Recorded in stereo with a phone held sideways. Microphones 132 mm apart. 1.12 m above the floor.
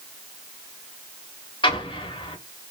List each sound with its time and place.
1.6 s an explosion: 40° left (ahead or behind), 0.8 m